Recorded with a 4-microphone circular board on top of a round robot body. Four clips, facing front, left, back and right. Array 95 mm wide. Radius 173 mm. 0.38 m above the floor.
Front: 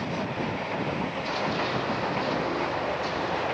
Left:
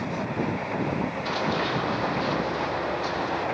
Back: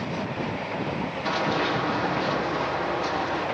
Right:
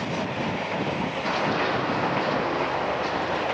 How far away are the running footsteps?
About 7 m.